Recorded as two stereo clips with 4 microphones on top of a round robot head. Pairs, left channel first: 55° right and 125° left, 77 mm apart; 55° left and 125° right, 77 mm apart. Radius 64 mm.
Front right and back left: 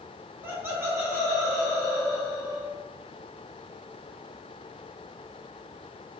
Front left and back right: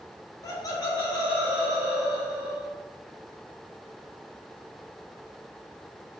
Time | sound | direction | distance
0.4 | laughter | 70° left | 0.8 m